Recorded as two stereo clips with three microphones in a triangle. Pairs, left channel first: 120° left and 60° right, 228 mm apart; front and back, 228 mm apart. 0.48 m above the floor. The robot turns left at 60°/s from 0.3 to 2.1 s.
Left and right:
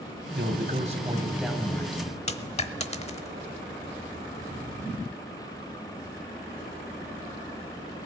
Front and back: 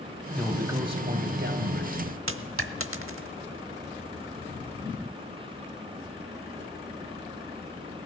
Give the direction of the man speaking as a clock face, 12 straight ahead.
3 o'clock.